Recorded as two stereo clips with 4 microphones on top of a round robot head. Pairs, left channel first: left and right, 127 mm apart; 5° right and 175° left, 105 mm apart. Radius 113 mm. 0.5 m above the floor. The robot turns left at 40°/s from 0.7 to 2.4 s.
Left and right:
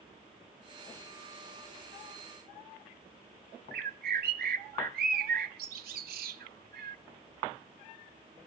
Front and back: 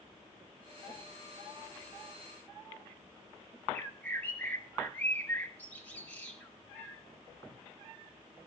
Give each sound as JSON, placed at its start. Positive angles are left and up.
{"t": 3.7, "sound": "a bird", "azimuth_deg": -85, "distance_m": 0.5}